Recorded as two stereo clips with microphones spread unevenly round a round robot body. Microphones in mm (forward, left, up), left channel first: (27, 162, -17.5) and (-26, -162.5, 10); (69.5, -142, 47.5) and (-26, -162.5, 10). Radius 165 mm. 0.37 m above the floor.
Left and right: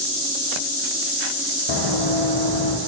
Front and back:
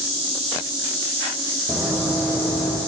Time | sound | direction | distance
1.7 | running footsteps | 100° left | 1.2 m